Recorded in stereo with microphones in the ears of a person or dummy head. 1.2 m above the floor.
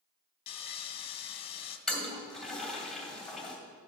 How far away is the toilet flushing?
About 2 m.